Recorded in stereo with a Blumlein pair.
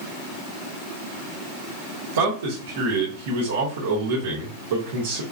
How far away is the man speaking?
About 1.2 m.